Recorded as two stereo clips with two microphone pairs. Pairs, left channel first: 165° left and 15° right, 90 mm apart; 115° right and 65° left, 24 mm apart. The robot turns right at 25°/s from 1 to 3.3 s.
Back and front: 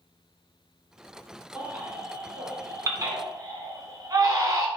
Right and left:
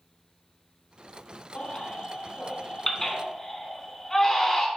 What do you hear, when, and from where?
1.6 s a baby crying: 90° right, 0.9 m; by 4.7 s 45° right, 0.9 m